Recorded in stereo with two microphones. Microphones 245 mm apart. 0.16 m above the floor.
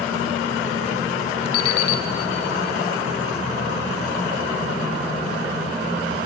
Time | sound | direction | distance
1.5 | an alarm clock | 65° right (ahead or behind) | 1.1 m